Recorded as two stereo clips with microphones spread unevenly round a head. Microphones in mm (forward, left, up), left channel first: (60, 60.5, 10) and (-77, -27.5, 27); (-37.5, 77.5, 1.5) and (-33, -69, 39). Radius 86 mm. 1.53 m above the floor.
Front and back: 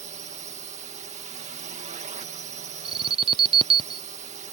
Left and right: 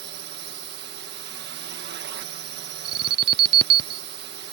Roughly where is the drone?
Right.